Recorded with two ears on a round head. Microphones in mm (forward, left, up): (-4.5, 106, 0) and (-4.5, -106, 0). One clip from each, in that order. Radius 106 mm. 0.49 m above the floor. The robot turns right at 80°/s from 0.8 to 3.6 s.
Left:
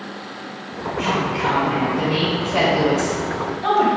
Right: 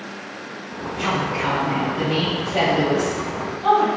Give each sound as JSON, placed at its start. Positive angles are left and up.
{"t": 1.0, "sound": "a woman speaking", "azimuth_deg": -90, "distance_m": 2.5}